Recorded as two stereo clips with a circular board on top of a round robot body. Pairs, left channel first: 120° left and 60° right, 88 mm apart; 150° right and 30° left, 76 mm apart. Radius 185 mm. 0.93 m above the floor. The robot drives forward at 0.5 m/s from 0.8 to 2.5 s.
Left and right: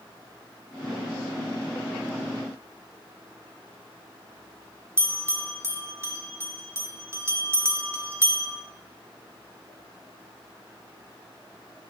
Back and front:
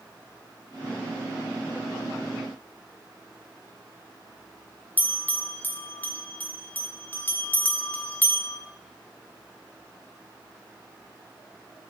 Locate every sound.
5.0 s a bell: 100° right, 0.8 m